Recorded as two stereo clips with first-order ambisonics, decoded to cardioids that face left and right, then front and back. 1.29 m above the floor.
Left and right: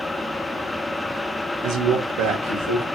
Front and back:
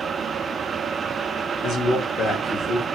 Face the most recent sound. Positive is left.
turn(degrees=-85)